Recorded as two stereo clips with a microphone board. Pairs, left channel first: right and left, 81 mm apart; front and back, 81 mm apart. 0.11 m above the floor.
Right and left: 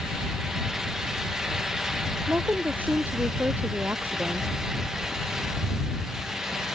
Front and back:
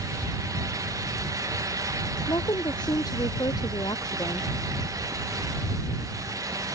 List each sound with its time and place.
2.3 s a woman speaking: 20° left; by 4.5 s 25° left